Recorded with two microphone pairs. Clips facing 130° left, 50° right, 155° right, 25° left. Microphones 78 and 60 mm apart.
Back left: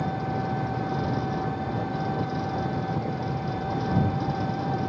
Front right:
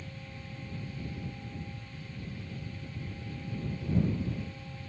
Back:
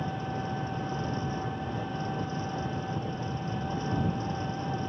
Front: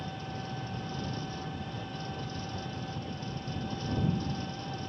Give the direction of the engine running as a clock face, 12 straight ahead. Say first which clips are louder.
Back left 19 dB, back 6 dB; 7 o'clock.